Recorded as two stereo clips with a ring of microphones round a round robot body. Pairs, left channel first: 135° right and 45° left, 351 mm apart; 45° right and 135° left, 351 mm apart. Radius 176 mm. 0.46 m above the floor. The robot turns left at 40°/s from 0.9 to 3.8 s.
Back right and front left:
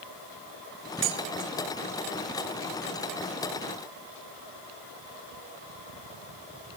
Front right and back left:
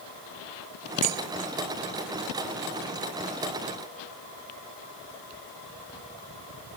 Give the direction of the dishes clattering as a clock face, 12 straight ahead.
9 o'clock.